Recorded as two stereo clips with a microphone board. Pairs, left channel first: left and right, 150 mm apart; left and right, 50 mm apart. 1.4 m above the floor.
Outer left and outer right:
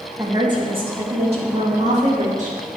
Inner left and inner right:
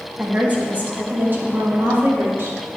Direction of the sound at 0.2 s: 25° right (ahead or behind).